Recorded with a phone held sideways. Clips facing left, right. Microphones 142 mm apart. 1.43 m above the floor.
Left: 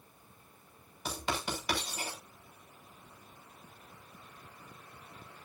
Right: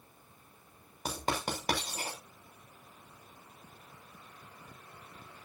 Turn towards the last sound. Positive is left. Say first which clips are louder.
# right 2 dB
turn(degrees=-45)  # may be behind; listen again after turning